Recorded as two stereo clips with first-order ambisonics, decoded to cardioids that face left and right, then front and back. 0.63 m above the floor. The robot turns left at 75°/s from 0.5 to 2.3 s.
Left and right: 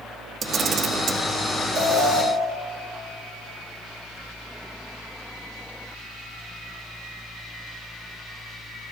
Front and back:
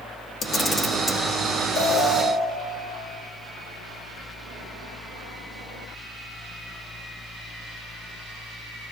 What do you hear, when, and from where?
0.4 s a camera shutter: 40° right, 0.6 m; by 1.2 s 90° right, 0.6 m
1.8 s an alarm: 45° right, 1.5 m; by 2.2 s 80° right, 1.5 m